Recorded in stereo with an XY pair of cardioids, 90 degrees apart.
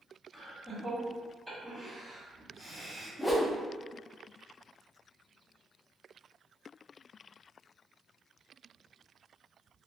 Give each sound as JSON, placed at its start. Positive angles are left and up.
{"t": 0.3, "sound": "laughter", "azimuth_deg": -5, "distance_m": 1.4}
{"t": 3.2, "sound": "a whoosh", "azimuth_deg": 15, "distance_m": 0.6}